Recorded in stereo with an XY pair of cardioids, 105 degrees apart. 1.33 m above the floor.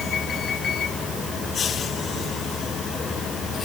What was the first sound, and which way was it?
Only background noise.